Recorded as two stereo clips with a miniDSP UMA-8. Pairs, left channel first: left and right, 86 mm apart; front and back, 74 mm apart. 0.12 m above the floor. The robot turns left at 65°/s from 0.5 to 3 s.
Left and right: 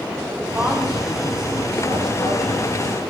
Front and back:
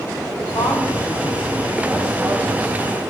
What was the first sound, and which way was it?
A woman speaking, 15° right.